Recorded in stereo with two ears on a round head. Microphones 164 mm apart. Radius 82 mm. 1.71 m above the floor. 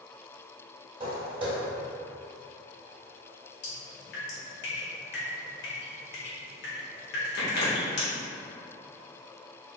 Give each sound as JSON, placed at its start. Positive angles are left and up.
{"t": 1.0, "sound": "footsteps", "side_deg": -30, "distance_m": 1.9}
{"t": 3.6, "sound": "dripping", "side_deg": 60, "distance_m": 1.5}